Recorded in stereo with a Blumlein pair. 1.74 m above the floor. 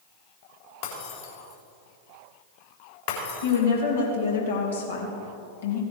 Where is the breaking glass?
55° left, 4 m.